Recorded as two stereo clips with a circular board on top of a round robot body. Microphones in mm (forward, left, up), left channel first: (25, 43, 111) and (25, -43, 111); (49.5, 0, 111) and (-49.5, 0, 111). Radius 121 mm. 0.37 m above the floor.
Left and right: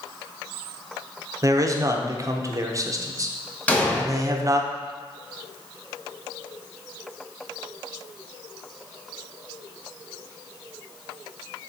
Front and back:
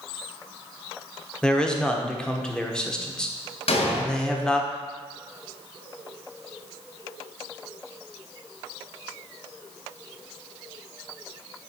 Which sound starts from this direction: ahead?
An explosion, at 3.7 s.